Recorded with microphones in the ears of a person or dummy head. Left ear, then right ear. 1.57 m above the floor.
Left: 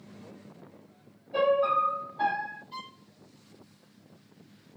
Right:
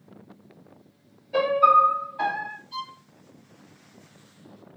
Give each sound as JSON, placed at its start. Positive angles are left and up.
{"t": 1.3, "sound": "a piano", "side_deg": -60, "distance_m": 1.2}
{"t": 2.7, "sound": "a violin", "side_deg": 0, "distance_m": 1.5}